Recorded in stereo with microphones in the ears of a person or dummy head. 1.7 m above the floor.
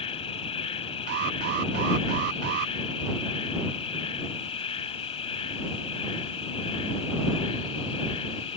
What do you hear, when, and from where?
0.0 s an insect: 35° left (ahead or behind)
1.1 s an alarm: 50° right (ahead or behind)